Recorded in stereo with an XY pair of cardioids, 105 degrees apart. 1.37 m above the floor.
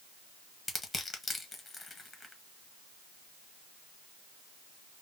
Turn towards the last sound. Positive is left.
turn(degrees=25)